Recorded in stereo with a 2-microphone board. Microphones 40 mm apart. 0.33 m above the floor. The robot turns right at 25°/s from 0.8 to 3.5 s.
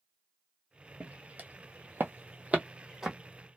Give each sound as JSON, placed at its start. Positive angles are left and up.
{"t": 1.0, "sound": "footsteps", "side_deg": -30, "distance_m": 0.9}